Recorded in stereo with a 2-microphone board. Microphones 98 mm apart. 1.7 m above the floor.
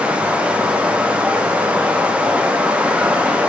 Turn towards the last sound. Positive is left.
turn(degrees=-15)  # may be behind; listen again after turning